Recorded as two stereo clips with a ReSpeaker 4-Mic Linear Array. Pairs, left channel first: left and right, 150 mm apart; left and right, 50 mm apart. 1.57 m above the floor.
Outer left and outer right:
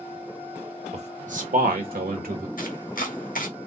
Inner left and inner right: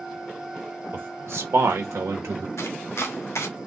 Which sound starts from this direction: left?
Chopping, at 2.6 s.